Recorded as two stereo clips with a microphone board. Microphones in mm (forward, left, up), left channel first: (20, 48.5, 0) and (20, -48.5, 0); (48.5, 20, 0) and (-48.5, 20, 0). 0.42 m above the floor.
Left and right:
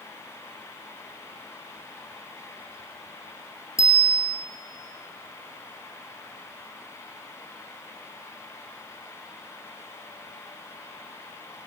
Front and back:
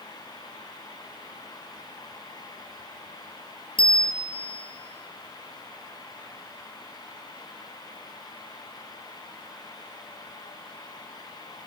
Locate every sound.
3.8 s a bicycle bell: 30° left, 6 m